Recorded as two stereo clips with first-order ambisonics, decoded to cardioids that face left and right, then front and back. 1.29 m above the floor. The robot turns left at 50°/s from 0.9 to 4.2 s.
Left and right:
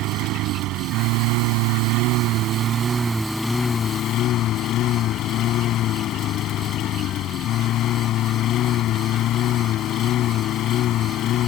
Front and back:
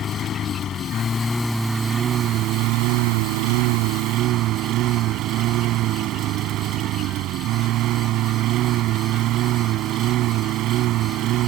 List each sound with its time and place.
0.0 s a lawn mower: 55° right; by 11.5 s 140° left